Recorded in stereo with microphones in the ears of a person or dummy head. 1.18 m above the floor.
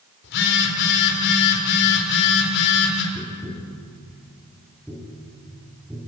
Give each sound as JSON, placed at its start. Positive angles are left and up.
{"t": 0.2, "sound": "a phone buzzing", "side_deg": 65, "distance_m": 3.5}
{"t": 3.1, "sound": "tapping", "side_deg": -5, "distance_m": 4.5}